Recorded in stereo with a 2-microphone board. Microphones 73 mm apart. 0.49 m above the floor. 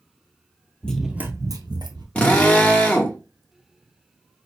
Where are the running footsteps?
15° left (ahead or behind), 0.9 m; by 2.0 s 75° right (ahead or behind), 1.4 m.